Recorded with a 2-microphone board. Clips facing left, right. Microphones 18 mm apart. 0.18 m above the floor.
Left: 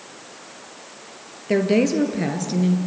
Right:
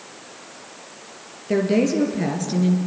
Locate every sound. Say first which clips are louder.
1.5 s a woman speaking: left 1 dB; 20° left (ahead or behind), 3.5 m; by 2.8 s centre (ahead or behind), 2.5 m